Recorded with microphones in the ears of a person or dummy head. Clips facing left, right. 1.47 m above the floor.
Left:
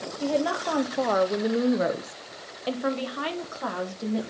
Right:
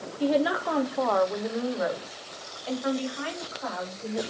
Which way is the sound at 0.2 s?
20° right (ahead or behind).